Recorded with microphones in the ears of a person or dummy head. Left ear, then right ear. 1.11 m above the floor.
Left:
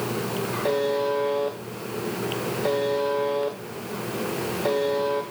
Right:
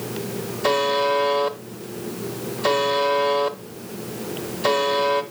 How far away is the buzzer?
About 0.8 m.